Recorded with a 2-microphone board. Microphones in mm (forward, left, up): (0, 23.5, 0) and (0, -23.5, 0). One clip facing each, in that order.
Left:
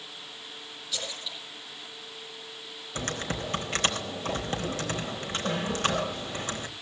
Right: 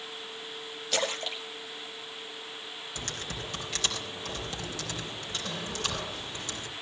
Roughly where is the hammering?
No hammering in this recording.